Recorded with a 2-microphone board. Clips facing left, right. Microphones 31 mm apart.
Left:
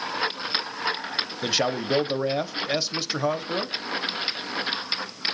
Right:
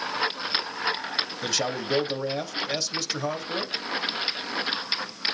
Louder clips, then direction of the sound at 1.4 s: Left 6 dB; 20° left (ahead or behind).